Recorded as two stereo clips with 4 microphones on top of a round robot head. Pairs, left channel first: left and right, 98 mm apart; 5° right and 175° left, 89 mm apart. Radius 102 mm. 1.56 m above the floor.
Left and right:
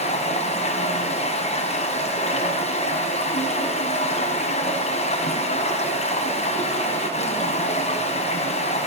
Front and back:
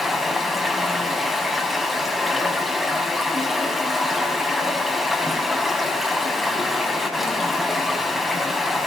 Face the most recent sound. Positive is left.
turn(degrees=90)